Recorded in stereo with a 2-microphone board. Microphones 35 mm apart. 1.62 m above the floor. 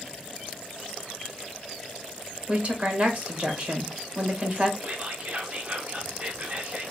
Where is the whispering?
40° right (ahead or behind), 0.7 m.